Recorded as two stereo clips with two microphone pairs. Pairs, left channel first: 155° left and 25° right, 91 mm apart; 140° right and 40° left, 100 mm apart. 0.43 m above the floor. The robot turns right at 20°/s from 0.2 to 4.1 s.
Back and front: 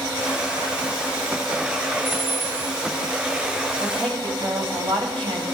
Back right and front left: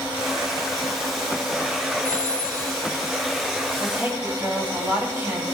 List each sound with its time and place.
2.0 s a phone ringing: 5° right, 7 m; by 2.8 s 10° left, 7 m
3.8 s a woman speaking: 35° right, 3.5 m; by 5.4 s 30° right, 3.5 m